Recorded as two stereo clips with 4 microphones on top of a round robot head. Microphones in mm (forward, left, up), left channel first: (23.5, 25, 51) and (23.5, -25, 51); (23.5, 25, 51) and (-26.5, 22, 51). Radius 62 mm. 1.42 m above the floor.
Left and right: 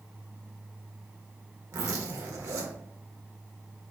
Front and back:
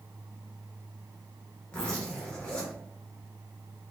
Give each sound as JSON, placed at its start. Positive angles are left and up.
{"t": 1.7, "sound": "a zipper", "azimuth_deg": -70, "distance_m": 1.0}